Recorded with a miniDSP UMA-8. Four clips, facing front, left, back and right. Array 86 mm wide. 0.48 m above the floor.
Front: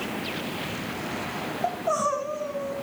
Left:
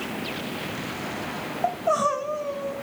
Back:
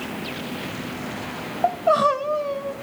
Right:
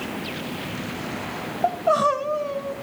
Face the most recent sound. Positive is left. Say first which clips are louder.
# right 3 dB, back 8 dB
turn(degrees=-155)